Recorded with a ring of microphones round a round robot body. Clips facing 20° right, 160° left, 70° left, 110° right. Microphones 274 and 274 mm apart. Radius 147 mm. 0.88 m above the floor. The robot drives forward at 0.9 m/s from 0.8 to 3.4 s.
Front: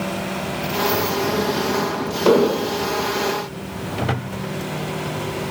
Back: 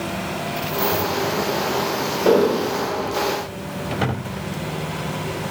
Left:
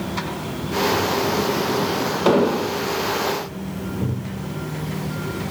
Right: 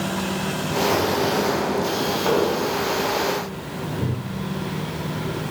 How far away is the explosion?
About 0.7 m.